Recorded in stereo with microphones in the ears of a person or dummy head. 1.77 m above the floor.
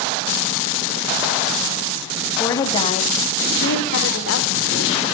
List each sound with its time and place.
2.4 s a woman speaking: 15° left (ahead or behind), 1.8 m; by 5.0 s 85° left, 3 m